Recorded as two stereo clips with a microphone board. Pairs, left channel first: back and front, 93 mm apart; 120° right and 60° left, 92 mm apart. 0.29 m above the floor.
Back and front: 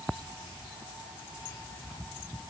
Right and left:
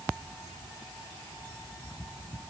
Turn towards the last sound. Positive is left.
No sound to turn to.